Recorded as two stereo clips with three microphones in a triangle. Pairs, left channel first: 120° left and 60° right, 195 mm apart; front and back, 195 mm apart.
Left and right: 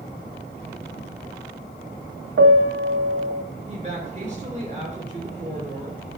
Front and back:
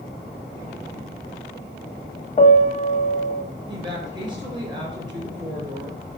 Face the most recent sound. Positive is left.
turn(degrees=-115)